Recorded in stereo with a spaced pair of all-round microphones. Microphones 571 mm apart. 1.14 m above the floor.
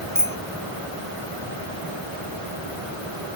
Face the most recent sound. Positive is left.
turn(degrees=5)  # may be behind; listen again after turning